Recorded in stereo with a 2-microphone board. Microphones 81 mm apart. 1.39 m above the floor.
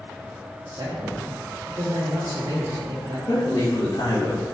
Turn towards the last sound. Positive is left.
turn(degrees=85)